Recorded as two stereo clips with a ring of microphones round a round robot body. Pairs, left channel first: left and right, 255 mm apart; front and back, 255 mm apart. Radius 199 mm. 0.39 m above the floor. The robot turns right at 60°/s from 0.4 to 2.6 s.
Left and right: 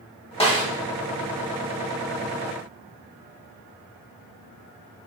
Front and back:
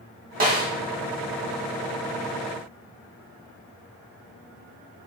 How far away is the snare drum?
About 1.7 m.